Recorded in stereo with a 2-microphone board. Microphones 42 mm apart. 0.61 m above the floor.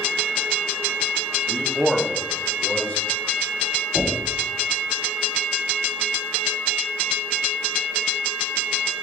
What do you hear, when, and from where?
1.5 s a man speaking: 35° right (ahead or behind), 0.7 m; by 3.0 s 40° left (ahead or behind), 1.4 m
4.0 s knocking: 60° right (ahead or behind), 1.5 m